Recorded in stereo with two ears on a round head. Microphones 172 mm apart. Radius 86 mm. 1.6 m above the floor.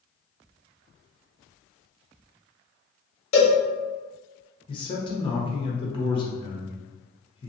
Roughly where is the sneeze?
No sneeze in this recording.